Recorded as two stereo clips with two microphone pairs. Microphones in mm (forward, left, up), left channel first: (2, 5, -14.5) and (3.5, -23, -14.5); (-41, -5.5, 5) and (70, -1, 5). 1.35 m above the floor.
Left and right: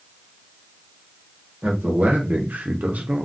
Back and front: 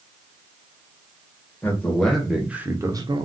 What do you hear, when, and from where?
1.6 s a man speaking: 100° right, 1.1 m; by 3.3 s 40° right, 0.7 m